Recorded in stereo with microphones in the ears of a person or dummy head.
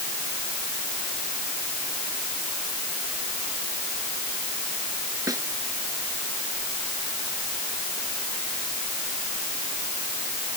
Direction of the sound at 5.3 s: 20° right (ahead or behind).